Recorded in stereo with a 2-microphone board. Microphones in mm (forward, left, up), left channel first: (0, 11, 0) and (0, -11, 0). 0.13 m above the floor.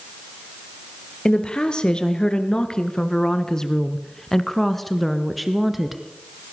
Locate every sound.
1.2 s a woman speaking: 45° left (ahead or behind), 2.5 m; by 6.0 s 5° right (ahead or behind), 2.0 m